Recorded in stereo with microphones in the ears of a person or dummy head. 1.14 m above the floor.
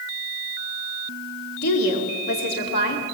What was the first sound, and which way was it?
A woman speaking, 60° left (ahead or behind).